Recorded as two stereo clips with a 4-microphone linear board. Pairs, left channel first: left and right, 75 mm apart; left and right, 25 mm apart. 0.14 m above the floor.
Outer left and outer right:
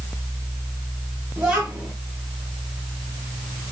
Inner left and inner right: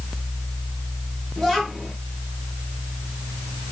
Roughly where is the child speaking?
Centre.